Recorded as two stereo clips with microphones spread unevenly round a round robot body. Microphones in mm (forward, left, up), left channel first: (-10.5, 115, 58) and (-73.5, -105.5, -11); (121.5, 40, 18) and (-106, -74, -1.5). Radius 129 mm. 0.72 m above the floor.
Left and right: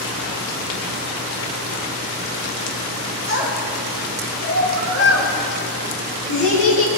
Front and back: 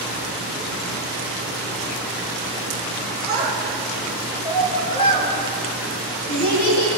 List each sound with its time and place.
3.3 s a child speaking: 105° left, 7.5 m; by 7.0 s 80° left, 9.5 m